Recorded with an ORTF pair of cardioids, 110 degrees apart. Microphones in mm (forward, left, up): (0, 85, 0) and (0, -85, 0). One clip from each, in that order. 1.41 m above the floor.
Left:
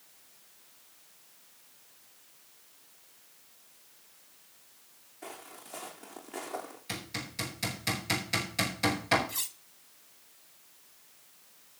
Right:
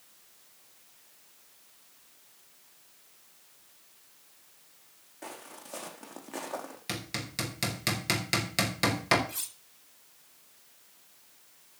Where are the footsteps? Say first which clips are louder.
Right 1 dB; 40° right, 4.5 m.